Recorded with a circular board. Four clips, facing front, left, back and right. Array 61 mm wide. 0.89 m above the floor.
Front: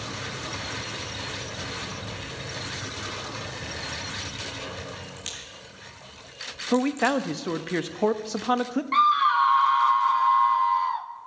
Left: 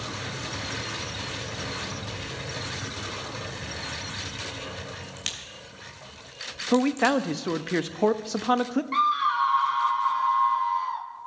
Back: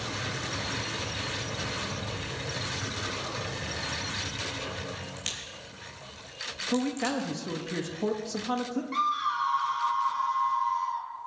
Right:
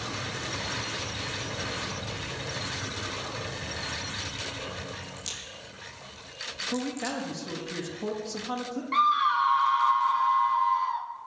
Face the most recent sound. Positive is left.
turn(degrees=0)